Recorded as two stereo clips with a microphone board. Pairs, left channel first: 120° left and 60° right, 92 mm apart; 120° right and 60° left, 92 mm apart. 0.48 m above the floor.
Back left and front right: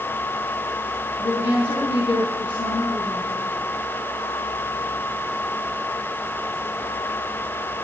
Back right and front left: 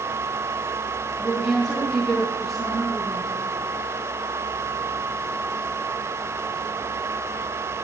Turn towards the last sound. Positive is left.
turn(degrees=140)